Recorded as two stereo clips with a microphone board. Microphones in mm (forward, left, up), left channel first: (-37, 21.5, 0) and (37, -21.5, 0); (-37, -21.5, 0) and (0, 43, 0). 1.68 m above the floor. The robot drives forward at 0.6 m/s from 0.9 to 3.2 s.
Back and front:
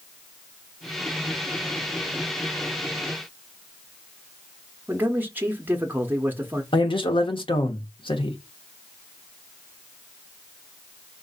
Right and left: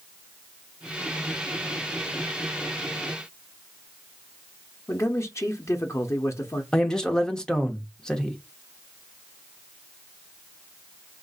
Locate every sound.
4.9 s a man speaking: 90° right, 0.7 m
6.7 s a man speaking: 160° left, 0.9 m